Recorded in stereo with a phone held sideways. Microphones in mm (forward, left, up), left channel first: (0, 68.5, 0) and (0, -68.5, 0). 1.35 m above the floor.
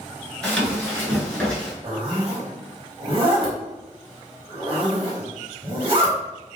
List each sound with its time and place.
0.4 s running footsteps: 5° left (ahead or behind), 1.3 m; by 1.7 s 10° left (ahead or behind), 1.4 m
1.8 s a zipper: 40° right (ahead or behind), 0.9 m